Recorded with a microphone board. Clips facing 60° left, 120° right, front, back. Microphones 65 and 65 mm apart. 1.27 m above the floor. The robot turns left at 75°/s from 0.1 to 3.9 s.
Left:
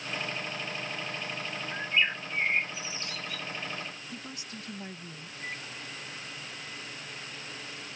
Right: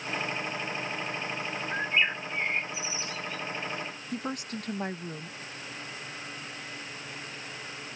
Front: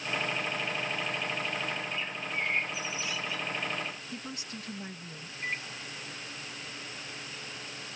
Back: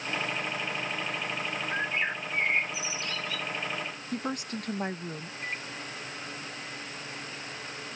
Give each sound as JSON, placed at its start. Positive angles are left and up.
{"t": 1.7, "sound": "a bird", "azimuth_deg": -175}
{"t": 4.1, "sound": "a woman speaking", "azimuth_deg": -150}
{"t": 5.4, "sound": "a microwave", "azimuth_deg": 80}